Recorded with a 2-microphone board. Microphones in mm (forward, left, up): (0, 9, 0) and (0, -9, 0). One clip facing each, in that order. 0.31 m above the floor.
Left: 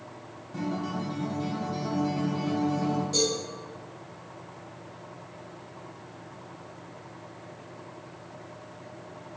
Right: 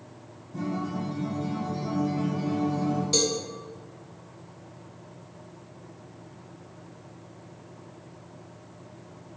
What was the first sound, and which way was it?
A guitar, 50° left (ahead or behind).